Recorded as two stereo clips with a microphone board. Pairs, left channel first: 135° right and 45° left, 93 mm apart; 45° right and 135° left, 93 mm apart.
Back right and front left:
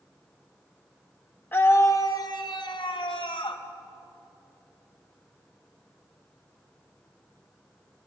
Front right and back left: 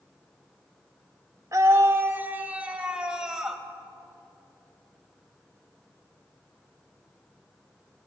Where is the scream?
165° left, 1.6 m; by 3.6 s 140° right, 3.5 m.